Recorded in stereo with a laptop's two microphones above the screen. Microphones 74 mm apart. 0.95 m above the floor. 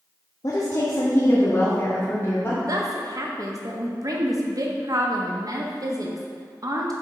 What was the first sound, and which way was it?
A woman speaking, 50° left (ahead or behind).